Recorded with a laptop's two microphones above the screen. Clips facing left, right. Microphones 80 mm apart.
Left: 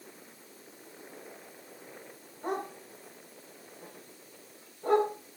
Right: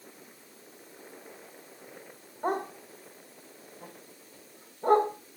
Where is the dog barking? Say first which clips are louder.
Right 4 dB; 45° right (ahead or behind), 2 m.